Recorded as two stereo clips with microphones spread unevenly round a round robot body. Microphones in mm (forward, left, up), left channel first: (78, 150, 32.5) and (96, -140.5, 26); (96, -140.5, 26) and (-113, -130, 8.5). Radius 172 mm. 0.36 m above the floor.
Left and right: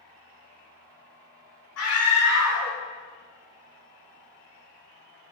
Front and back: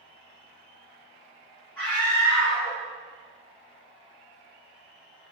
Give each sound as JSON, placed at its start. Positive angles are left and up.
{"t": 1.8, "sound": "a scream", "azimuth_deg": 85, "distance_m": 2.0}